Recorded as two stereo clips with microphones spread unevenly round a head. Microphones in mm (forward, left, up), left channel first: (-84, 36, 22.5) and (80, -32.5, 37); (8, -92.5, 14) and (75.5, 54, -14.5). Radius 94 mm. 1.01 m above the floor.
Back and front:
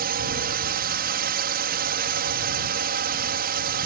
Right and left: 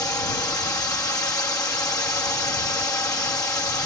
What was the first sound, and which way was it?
A drone, 45° right.